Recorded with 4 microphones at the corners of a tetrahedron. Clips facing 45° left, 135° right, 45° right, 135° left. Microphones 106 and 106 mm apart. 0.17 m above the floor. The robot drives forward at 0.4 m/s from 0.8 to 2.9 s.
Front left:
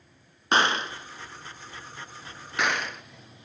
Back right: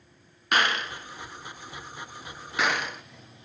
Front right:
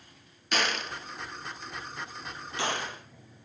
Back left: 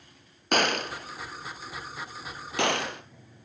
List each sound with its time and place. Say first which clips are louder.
0.5 s a gunshot: front left 2 dB, back left 5 dB; 105° left, 1.0 m; by 3.0 s 140° left, 1.4 m